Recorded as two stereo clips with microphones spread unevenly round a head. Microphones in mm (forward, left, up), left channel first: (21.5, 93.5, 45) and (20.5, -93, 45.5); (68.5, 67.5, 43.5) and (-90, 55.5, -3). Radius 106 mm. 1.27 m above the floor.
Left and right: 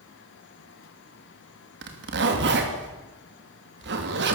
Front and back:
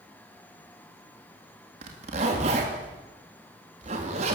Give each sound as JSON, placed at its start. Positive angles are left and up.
{"t": 1.8, "sound": "a zipper", "azimuth_deg": -120, "distance_m": 3.0}